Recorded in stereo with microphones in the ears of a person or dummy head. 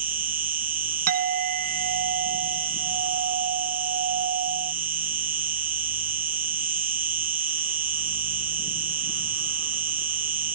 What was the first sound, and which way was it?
An insect, 40° right (ahead or behind).